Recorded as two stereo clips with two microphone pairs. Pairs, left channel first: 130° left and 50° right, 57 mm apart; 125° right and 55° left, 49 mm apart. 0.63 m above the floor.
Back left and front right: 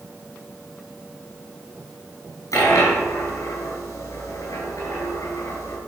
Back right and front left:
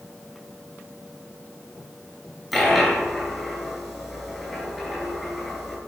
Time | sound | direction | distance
2.5 | a dropped coin | 145° left | 5 m